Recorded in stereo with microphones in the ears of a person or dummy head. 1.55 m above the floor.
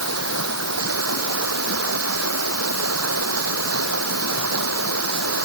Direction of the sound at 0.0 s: 85° right.